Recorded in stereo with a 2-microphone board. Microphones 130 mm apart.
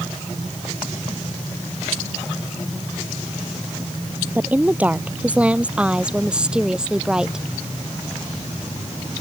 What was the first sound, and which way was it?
A woman speaking, 15° right (ahead or behind).